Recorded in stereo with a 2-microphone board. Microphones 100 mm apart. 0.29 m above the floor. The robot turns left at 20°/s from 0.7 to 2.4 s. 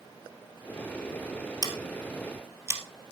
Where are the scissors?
45° right (ahead or behind), 2 m; by 2.8 s 25° right (ahead or behind), 2 m.